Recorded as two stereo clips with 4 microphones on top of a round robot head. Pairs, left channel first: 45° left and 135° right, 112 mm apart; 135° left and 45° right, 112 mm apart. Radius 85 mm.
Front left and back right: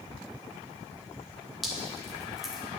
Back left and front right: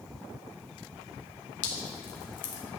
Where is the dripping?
135° left, 1.0 m.